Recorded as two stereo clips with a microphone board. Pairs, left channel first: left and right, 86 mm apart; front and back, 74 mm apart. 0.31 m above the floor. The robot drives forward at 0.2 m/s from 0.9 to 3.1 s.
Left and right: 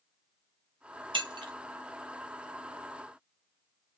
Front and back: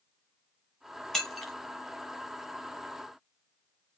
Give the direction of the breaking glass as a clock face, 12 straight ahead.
3 o'clock.